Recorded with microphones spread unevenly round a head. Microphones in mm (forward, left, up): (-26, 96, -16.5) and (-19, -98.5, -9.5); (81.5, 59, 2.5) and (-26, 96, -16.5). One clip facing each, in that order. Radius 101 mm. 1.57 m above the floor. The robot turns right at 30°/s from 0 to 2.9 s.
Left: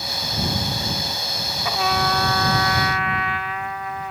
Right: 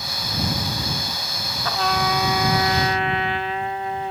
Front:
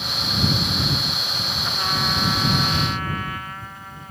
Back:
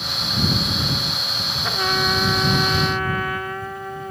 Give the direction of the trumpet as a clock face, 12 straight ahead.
6 o'clock.